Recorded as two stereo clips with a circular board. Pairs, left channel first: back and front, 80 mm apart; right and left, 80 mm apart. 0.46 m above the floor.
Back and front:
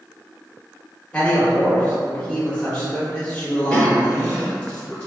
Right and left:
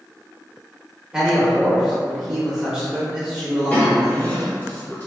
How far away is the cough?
About 1.0 m.